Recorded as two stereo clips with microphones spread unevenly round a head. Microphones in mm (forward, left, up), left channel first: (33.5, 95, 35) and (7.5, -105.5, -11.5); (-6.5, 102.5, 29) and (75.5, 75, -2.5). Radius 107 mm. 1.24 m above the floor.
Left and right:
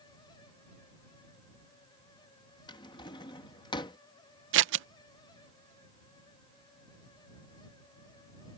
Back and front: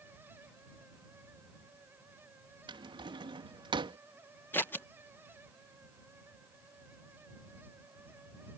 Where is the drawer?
20° left.